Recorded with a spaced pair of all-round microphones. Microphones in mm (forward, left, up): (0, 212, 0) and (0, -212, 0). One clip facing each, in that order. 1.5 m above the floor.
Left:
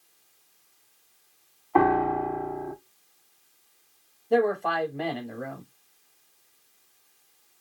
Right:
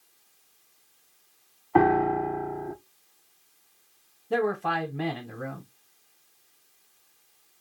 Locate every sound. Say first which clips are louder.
1.8 s a piano: right 1 dB; 30° right (ahead or behind), 1.6 m
4.3 s a man speaking: left 3 dB; 30° right (ahead or behind), 1.5 m